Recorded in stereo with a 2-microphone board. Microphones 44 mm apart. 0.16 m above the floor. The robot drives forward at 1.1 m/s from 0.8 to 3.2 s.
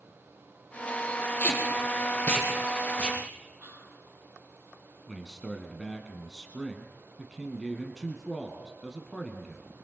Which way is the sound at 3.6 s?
60° right (ahead or behind).